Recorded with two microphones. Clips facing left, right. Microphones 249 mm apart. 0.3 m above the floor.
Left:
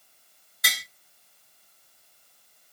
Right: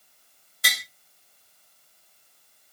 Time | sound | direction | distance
0.6 | tapping | 30° right (ahead or behind) | 2 m